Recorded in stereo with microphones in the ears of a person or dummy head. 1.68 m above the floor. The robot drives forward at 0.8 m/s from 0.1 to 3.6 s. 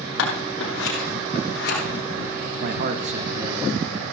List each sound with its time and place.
0.2 s scissors: 75° left (ahead or behind), 3 m; by 1.8 s 60° left (ahead or behind), 3.5 m
2.6 s a man speaking: 60° right (ahead or behind), 0.6 m; by 4.0 s 25° right (ahead or behind), 1.2 m